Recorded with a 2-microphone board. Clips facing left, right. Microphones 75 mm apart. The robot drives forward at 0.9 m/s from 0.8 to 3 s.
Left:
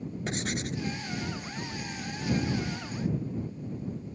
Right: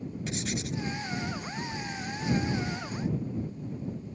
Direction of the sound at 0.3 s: 45° left (ahead or behind).